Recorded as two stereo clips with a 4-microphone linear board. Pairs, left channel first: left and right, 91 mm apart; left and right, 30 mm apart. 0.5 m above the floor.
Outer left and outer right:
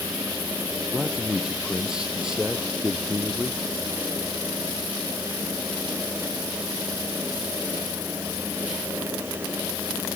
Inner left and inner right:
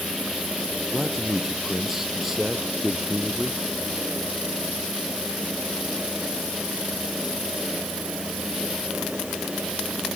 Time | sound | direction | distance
0.9 | a man speaking | 10° right (ahead or behind) | ?